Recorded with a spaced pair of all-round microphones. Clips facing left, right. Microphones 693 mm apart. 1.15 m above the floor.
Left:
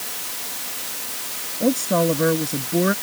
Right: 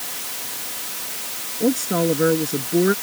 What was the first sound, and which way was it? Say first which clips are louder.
A woman speaking: even; 10° left (ahead or behind).